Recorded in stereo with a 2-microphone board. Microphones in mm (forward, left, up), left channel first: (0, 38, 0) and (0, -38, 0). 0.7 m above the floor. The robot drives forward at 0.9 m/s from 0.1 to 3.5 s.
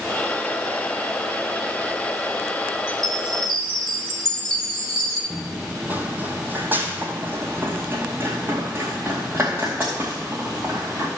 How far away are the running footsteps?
About 0.9 m.